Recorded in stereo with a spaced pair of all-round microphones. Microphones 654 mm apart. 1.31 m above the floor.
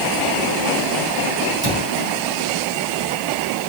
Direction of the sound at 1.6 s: 55° right (ahead or behind).